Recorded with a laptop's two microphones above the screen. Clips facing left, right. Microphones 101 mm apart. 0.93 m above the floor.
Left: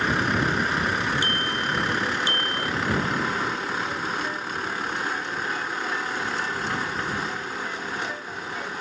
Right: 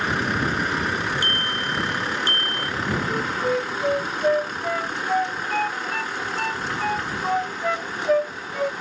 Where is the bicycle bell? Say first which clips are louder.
Even; 50° right (ahead or behind); by 2.7 s 45° right (ahead or behind).